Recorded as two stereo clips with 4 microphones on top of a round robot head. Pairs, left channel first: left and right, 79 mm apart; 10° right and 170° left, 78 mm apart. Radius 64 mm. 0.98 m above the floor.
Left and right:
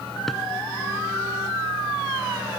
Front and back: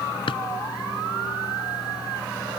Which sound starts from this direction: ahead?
A drawer, at 0.3 s.